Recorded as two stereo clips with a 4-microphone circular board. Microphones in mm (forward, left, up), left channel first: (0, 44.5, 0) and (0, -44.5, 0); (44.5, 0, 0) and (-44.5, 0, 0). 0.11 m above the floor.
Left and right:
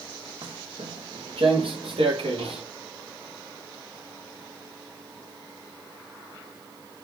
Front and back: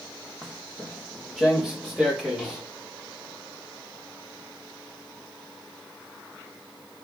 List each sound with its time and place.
0.4 s footsteps: 95° right, 1.9 m